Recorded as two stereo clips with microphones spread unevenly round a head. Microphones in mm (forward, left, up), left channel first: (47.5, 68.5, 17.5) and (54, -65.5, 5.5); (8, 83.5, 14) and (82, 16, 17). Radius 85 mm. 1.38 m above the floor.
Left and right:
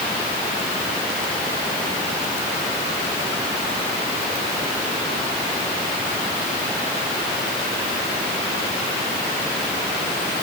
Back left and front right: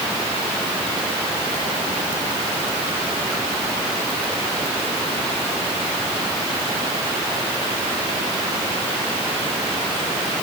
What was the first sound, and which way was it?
Only background noise.